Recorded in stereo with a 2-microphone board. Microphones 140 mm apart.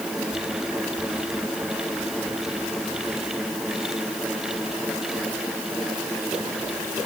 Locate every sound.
Only background noise.